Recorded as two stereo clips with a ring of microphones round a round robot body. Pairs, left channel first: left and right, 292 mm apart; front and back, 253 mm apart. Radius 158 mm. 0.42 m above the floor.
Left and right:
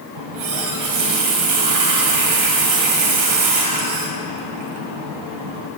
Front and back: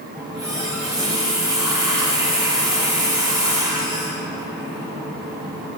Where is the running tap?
100° right, 1.7 m.